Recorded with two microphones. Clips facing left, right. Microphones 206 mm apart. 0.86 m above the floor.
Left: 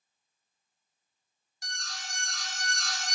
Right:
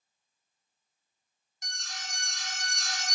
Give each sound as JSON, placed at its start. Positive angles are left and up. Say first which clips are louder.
{"t": 1.6, "sound": "an alarm", "louder": "left 1 dB", "side_deg": -20, "distance_m": 1.2}